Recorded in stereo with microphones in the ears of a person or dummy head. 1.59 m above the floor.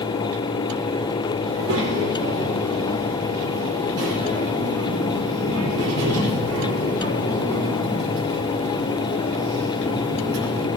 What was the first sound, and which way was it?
A child speaking, 85° right.